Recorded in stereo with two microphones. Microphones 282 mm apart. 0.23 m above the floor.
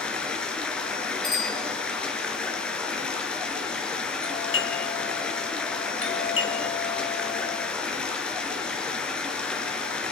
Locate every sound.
0.0 s running water: 5° left (ahead or behind), 3.5 m
1.2 s a bicycle bell: 15° right (ahead or behind), 3.5 m
4.2 s a doorbell: 45° left (ahead or behind), 3 m